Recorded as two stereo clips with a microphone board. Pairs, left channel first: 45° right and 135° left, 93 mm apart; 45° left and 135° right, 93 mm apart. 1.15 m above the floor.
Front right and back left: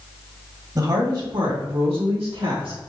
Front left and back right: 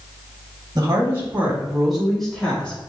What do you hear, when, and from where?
0.8 s a woman speaking: 175° left, 1.1 m; by 2.9 s 120° left, 1.9 m